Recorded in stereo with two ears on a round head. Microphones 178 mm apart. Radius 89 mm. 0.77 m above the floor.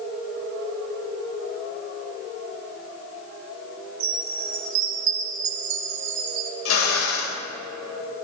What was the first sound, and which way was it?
A chime, 70° right (ahead or behind).